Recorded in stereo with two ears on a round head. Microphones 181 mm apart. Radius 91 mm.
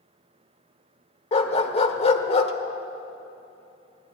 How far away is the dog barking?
About 1.4 m.